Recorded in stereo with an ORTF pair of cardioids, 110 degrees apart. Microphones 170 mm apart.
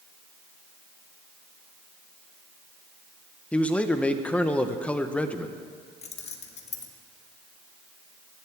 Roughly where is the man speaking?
Ahead.